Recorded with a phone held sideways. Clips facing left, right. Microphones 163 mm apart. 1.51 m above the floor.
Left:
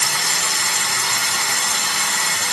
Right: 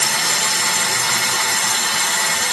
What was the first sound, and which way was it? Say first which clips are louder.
Running water: right 3 dB; 70° right (ahead or behind).